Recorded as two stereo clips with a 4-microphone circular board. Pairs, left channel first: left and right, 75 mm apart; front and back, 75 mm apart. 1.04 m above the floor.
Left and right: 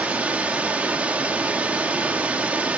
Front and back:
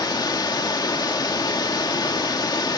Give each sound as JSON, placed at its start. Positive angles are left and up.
{"t": 0.0, "sound": "running water", "azimuth_deg": -20, "distance_m": 1.9}